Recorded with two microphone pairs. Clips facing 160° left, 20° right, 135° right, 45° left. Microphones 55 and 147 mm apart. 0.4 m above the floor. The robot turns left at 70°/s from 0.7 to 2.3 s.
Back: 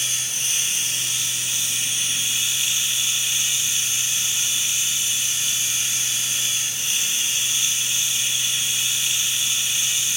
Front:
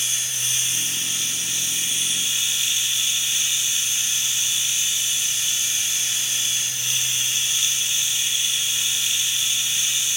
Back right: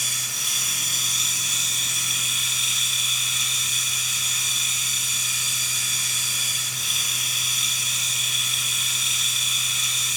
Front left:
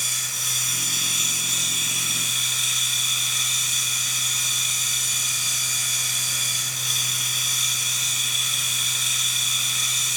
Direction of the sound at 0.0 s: 155° right.